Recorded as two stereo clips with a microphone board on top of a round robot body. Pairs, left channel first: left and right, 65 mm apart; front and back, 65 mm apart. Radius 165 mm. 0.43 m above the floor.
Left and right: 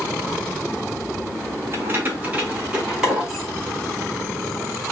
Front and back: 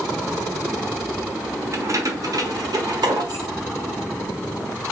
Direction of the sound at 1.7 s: 140° right.